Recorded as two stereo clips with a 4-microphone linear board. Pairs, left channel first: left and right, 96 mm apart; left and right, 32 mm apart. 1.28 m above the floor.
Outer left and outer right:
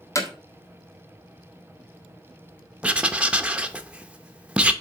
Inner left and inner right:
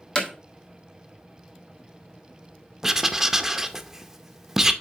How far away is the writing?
About 0.6 m.